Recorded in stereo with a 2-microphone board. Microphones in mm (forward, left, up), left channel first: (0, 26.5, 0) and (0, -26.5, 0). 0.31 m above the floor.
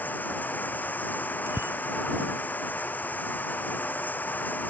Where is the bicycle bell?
55° right (ahead or behind).